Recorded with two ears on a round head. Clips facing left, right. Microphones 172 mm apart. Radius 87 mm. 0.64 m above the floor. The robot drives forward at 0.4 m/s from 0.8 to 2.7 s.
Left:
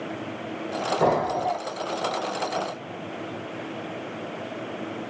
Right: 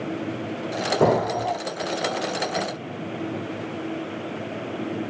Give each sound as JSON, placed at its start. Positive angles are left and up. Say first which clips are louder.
{"t": 1.0, "sound": "an explosion", "louder": "right 3 dB", "side_deg": -45, "distance_m": 2.0}